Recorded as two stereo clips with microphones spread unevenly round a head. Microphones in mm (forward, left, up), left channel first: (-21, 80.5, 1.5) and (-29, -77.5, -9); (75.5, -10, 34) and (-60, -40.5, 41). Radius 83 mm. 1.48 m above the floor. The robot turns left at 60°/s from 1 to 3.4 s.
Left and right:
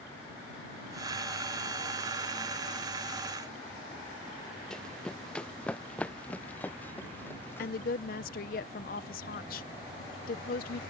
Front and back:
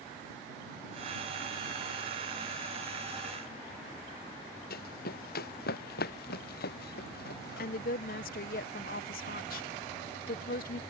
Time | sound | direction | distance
4.7 | running footsteps | straight ahead | ?
7.6 | a woman speaking | 45° left | ?